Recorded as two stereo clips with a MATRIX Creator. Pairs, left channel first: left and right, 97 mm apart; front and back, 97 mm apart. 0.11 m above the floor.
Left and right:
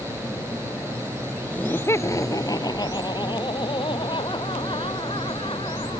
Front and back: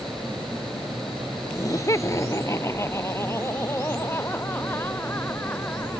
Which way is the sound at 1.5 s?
25° left.